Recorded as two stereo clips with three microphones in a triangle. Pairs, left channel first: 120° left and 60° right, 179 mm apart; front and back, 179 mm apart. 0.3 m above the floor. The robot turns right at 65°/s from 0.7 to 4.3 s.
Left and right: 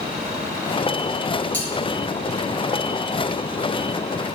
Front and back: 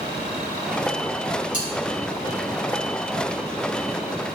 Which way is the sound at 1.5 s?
40° left.